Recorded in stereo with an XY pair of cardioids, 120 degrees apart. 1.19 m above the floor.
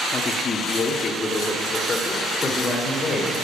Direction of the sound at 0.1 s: 35° left.